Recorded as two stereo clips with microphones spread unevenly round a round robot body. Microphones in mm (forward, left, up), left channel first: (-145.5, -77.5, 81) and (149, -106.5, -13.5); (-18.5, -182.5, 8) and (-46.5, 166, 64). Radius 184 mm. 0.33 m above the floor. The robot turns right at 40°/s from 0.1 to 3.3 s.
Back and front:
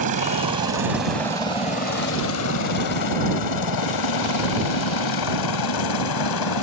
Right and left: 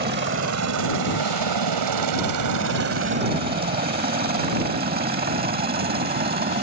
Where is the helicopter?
30° left; by 6.6 s 160° left.